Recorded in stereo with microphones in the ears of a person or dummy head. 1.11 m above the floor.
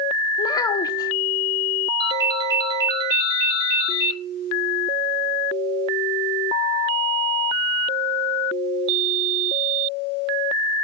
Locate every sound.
0.4 s a child speaking: 25° left (ahead or behind), 0.7 m
2.0 s a ringtone: 25° right (ahead or behind), 4 m